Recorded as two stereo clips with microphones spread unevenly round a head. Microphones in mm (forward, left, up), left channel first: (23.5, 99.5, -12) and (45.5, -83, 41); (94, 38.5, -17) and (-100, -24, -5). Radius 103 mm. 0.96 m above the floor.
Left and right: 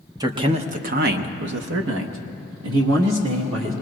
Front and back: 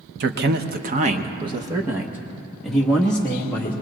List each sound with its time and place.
0.2 s a man speaking: 165° right, 0.9 m; by 3.7 s 60° right, 1.8 m